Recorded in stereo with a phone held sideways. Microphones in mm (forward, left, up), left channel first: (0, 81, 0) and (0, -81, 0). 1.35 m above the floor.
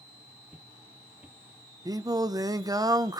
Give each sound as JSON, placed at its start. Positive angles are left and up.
{"t": 0.5, "sound": "footsteps", "side_deg": -5, "distance_m": 1.7}
{"t": 1.9, "sound": "singing", "side_deg": -20, "distance_m": 0.7}